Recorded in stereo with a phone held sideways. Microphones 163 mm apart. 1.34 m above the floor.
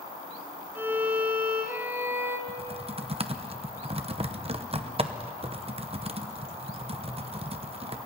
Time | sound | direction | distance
0.8 | a violin | 15° right (ahead or behind) | 2.5 m
2.5 | typing on a keyboard | 35° right (ahead or behind) | 0.8 m